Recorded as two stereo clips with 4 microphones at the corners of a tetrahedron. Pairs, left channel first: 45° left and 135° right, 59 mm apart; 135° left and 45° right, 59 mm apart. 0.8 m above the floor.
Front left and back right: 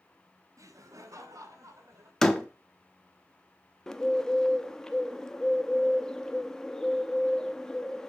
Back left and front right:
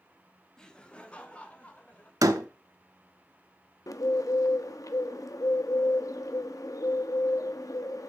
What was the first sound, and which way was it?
Laughter, 150° right.